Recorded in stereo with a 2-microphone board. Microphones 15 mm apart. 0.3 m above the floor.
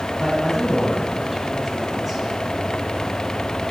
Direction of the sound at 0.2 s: 10° left (ahead or behind).